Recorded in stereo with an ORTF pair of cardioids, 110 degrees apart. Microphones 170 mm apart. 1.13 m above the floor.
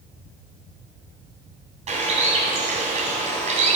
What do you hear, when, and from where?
1.9 s a bird: 45° right, 2.5 m